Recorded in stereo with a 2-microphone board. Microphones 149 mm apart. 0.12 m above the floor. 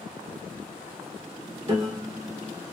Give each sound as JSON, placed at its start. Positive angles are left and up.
{"t": 1.6, "sound": "a piano", "side_deg": -35, "distance_m": 1.7}